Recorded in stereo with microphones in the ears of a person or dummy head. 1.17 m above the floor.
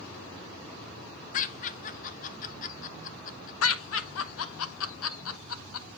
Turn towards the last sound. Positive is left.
turn(degrees=75)  # may be behind; listen again after turning